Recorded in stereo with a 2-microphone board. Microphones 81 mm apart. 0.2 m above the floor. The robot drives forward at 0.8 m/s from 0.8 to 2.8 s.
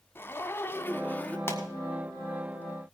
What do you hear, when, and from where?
0.1 s a zipper: 25° left (ahead or behind), 0.8 m; by 1.4 s 20° left (ahead or behind), 1.1 m
1.5 s a pop: 30° left (ahead or behind), 1.8 m